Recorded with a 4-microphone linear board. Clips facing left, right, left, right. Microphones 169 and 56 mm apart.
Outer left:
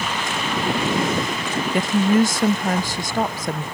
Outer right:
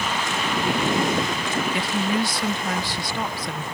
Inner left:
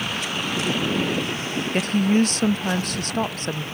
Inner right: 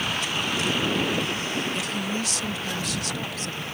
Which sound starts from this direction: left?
A woman speaking, at 1.7 s.